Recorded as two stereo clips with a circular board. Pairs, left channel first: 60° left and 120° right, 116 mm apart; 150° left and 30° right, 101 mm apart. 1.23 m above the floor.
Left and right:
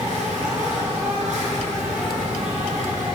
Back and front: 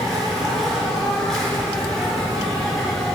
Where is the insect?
125° right, 4 m.